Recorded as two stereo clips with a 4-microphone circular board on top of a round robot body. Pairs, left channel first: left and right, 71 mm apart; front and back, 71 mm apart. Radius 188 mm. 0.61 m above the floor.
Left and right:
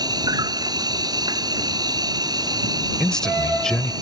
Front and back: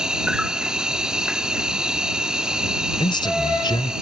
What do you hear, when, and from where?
0.0 s an insect: 100° right
3.0 s a man speaking: 10° left